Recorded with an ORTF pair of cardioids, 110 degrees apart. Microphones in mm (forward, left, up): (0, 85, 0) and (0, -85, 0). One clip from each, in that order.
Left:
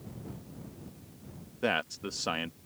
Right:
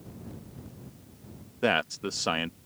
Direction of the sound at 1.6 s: 20° right.